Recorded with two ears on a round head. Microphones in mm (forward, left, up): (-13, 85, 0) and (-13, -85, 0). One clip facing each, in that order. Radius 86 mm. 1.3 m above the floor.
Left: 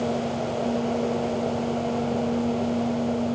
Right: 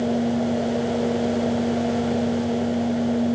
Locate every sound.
Only background noise.